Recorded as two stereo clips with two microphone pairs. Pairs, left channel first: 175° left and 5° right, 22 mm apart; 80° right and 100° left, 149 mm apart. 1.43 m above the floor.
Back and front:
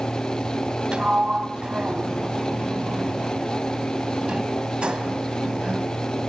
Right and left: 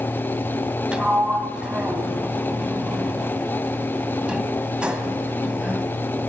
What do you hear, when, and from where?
0.9 s a sliding door: 15° left, 2 m